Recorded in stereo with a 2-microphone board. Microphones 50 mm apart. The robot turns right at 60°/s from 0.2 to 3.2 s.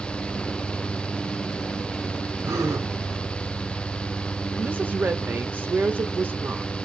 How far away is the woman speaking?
About 1.0 m.